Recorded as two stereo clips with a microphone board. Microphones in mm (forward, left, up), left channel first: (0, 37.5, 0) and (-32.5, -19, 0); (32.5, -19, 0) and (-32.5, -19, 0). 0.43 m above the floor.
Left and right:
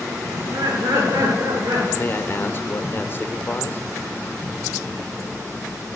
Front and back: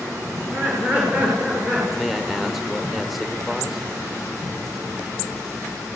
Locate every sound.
0.3 s laughter: 115° right, 8 m; by 1.9 s 110° right, 10.5 m
2.0 s a man speaking: 90° left, 1.6 m